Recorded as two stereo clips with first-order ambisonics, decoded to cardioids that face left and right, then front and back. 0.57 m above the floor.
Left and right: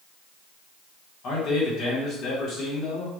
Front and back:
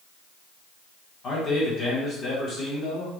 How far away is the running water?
I don't hear running water.